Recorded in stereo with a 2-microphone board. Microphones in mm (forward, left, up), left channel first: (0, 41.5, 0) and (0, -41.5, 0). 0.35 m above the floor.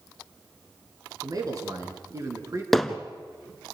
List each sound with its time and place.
1.2 s a man speaking: 50° right (ahead or behind), 4 m; by 2.6 s 35° right (ahead or behind), 4.5 m
2.7 s hammering: centre (ahead or behind), 1.1 m